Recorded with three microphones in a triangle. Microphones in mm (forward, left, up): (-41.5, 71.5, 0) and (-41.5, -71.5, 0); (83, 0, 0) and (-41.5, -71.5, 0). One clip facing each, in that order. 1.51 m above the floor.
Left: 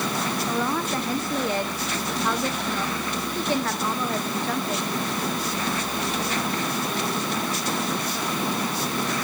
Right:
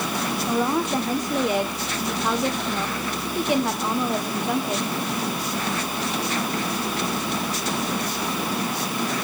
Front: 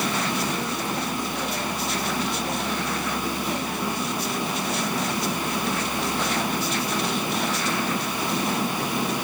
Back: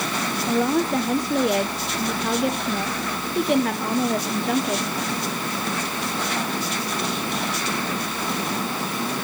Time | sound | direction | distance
0.5 | a woman speaking | 165° right | 1.1 m